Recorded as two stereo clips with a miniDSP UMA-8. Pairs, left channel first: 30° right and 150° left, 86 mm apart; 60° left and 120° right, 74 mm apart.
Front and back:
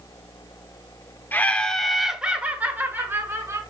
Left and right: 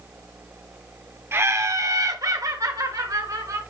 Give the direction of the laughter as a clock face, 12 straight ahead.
3 o'clock.